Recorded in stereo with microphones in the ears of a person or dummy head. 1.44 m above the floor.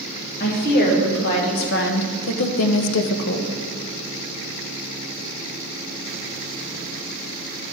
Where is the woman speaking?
55° left (ahead or behind), 1.9 m; by 3.5 s 40° left (ahead or behind), 0.5 m.